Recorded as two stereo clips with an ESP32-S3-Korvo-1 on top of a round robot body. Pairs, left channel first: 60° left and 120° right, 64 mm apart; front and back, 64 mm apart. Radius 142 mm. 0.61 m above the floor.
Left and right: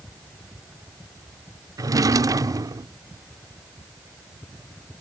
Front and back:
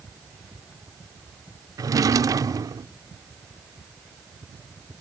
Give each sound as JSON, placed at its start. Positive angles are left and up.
{"t": 1.8, "sound": "a drawer", "azimuth_deg": -150}